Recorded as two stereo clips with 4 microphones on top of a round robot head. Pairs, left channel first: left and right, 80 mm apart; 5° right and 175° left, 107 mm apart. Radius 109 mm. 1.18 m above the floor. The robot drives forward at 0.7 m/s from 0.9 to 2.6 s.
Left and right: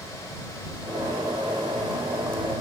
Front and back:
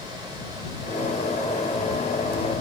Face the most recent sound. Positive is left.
No sound to turn to.